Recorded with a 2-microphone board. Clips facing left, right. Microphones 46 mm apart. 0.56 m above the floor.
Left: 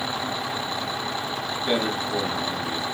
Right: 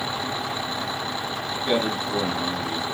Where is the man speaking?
10° left (ahead or behind), 1.0 m; by 3.0 s 40° right (ahead or behind), 1.4 m.